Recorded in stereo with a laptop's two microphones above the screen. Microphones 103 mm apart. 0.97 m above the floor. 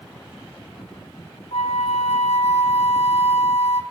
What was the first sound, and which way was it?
A flute, 80° left.